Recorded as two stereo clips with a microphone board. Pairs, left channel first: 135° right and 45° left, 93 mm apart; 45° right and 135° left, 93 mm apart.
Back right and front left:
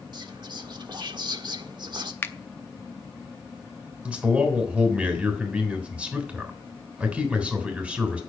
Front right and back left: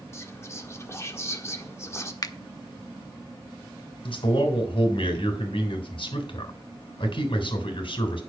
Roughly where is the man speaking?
Ahead right.